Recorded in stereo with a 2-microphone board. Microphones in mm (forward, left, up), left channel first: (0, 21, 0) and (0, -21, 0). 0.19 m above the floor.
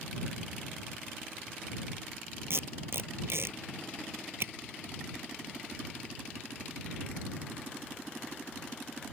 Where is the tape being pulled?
75° right (ahead or behind).